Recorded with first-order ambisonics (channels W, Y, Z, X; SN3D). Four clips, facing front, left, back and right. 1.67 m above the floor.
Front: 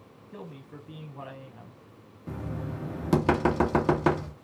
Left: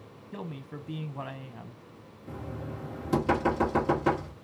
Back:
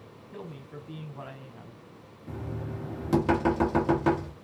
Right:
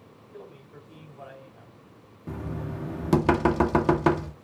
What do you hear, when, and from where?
0.3 s a man speaking: 90° left, 0.7 m
2.3 s knocking: 60° right, 1.2 m